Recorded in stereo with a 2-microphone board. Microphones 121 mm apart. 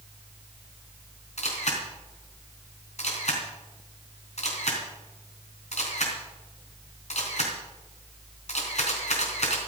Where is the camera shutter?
65° left (ahead or behind), 3.5 m.